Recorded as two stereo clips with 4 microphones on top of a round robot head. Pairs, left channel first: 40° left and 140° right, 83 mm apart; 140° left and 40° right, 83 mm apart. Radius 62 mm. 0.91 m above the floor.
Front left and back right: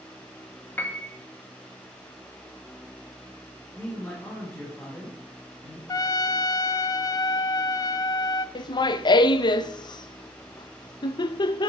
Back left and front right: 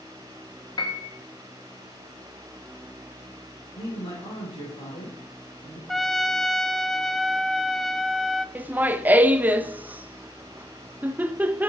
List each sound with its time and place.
0.8 s a piano: 110° left, 1.8 m
3.8 s a man speaking: 110° left, 4 m
5.9 s a trumpet: 55° left, 0.6 m
8.6 s laughter: 25° left, 0.7 m